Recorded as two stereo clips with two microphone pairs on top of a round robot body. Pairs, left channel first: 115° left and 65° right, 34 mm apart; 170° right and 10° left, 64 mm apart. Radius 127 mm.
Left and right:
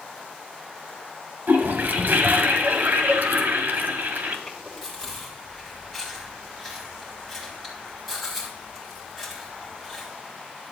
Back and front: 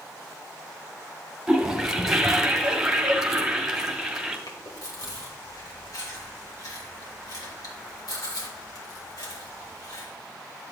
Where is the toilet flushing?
75° right, 1.5 m.